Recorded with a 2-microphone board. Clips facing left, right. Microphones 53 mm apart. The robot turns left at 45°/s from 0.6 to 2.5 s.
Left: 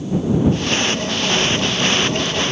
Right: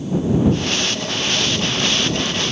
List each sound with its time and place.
Only background noise.